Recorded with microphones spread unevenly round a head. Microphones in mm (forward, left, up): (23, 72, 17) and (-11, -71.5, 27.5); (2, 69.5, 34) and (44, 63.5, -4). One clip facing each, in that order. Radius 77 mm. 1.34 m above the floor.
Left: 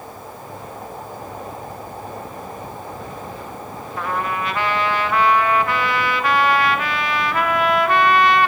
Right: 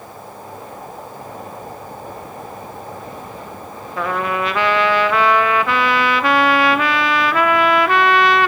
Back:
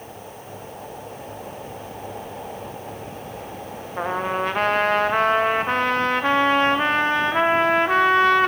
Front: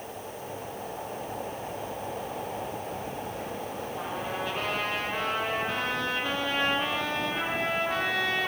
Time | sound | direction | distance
4.0 | a trumpet | 115° right | 0.7 m